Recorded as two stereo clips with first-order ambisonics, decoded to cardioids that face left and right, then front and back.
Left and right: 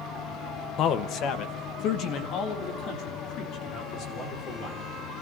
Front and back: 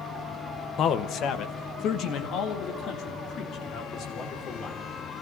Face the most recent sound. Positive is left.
turn(degrees=50)